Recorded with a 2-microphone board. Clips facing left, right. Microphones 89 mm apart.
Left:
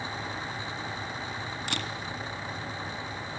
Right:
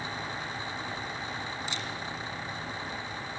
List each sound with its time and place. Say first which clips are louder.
1.7 s a camera shutter: left 2 dB; 60° left (ahead or behind), 2.0 m